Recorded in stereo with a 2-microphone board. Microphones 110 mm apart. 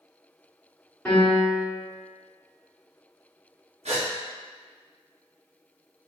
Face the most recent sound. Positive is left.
turn(degrees=-80)